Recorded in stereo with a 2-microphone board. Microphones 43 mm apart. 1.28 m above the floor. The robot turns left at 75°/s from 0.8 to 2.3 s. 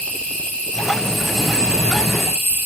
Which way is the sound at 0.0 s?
40° left.